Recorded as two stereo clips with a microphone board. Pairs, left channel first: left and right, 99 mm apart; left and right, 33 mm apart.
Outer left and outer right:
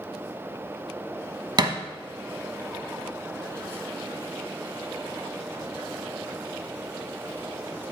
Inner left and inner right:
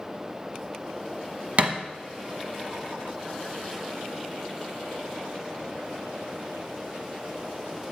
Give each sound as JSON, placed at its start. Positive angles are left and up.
{"t": 1.6, "sound": "a thud", "side_deg": -45, "distance_m": 1.1}